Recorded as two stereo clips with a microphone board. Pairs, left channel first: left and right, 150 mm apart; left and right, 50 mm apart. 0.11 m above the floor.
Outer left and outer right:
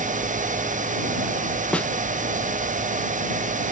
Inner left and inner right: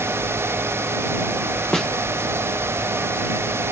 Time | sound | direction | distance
1.7 | a snare drum | 10° left (ahead or behind) | ?